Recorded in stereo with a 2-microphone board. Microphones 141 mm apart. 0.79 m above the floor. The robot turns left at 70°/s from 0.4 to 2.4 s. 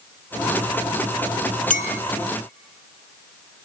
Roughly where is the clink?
Left.